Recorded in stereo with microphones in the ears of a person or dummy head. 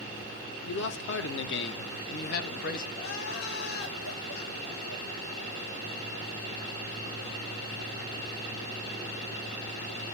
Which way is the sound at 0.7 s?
55° left (ahead or behind).